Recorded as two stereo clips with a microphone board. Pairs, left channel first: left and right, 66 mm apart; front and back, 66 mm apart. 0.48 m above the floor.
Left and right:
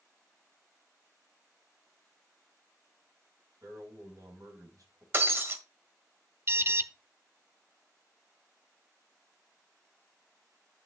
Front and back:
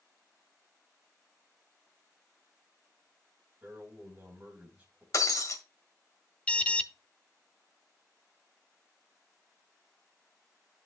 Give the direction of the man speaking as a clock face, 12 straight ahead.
4 o'clock.